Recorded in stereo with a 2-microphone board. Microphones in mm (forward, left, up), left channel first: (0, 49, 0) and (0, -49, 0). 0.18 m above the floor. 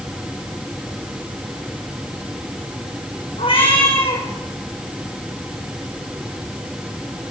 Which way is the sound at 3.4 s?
65° left (ahead or behind).